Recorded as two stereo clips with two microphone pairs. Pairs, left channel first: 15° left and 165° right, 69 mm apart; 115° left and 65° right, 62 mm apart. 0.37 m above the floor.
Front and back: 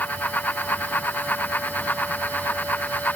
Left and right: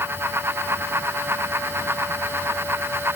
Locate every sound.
Only background noise.